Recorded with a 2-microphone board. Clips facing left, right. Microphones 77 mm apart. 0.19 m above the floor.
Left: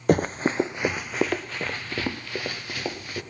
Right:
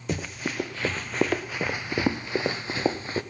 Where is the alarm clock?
I don't hear an alarm clock.